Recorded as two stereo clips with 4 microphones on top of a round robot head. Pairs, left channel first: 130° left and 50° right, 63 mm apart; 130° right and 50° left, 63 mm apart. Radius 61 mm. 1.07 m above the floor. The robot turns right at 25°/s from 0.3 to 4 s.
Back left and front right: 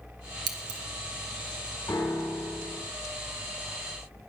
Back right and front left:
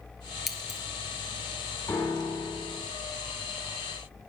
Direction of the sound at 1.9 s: Straight behind.